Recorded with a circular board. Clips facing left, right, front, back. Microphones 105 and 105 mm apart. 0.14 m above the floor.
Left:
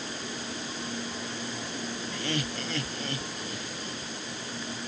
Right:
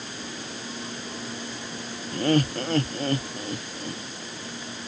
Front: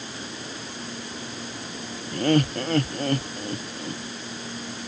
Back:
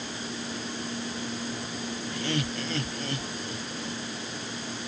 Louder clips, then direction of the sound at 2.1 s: Right 12 dB, front 11 dB; 45° right.